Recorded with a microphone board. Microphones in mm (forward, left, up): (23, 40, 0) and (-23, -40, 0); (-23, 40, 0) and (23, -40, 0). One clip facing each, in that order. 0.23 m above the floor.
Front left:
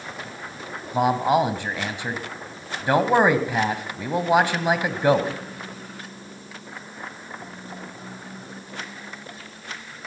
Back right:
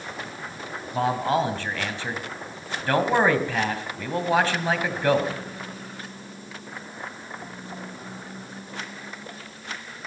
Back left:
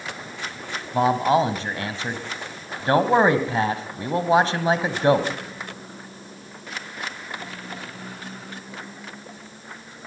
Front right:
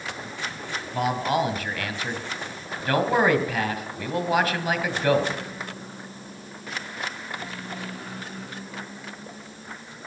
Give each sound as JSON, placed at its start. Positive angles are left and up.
{"t": 0.9, "sound": "a man speaking", "azimuth_deg": 110, "distance_m": 1.6}